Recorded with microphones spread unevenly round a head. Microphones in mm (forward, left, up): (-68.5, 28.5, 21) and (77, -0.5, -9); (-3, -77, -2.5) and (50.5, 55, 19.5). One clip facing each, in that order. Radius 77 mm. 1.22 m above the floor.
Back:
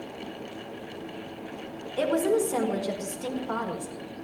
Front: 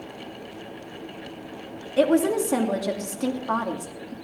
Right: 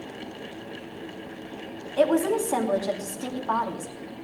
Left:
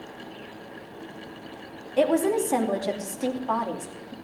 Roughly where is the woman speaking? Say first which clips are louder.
Front 4 dB, even; ahead.